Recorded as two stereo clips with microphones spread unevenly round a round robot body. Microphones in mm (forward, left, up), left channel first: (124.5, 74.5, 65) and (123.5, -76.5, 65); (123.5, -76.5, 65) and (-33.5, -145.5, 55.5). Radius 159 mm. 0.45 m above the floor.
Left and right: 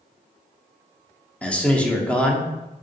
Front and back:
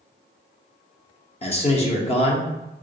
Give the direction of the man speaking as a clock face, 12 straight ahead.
12 o'clock.